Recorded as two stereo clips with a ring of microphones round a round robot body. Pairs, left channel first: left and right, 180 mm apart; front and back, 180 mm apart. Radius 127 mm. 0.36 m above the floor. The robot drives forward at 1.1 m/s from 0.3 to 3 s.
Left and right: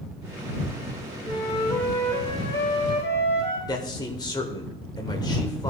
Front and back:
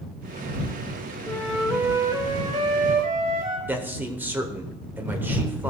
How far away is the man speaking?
About 1.1 m.